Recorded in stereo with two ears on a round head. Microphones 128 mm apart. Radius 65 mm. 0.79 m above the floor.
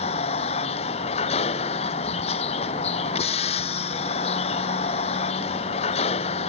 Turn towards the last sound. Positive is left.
turn(degrees=45)  # may be behind; listen again after turning